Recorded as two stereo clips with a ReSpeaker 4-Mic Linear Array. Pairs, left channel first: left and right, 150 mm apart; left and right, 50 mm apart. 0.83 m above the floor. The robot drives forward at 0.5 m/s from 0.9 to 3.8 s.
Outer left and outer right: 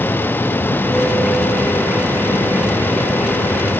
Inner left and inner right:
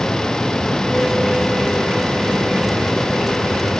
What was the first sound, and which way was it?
Only background noise.